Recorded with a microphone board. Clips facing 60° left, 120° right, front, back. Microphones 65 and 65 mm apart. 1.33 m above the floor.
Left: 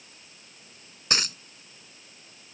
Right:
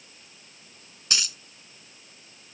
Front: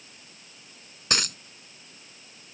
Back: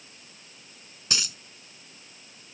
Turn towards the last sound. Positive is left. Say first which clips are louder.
# left 3 dB, front 5 dB
turn(degrees=20)